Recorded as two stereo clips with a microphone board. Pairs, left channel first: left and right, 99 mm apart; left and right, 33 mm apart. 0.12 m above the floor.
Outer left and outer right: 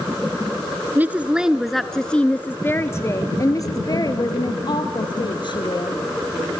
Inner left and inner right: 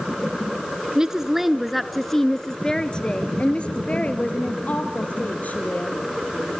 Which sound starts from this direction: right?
A woman speaking, at 0.9 s.